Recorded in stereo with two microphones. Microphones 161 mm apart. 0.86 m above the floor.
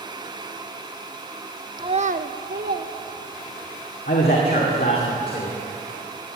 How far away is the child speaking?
About 0.5 m.